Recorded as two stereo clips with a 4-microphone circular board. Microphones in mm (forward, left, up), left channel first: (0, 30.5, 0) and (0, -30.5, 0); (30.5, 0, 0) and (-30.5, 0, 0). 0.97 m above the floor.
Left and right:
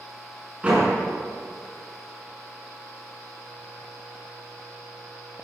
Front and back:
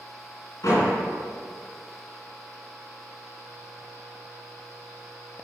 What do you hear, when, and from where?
0.6 s a door slam: 15° right, 7 m